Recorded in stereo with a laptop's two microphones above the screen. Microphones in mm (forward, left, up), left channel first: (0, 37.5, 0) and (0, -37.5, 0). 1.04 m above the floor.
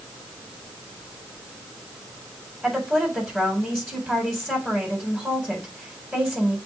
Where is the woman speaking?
Centre (ahead or behind), 4 m.